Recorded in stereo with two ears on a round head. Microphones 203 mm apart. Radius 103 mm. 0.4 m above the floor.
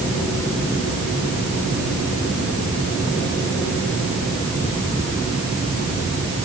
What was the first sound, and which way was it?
Only background noise.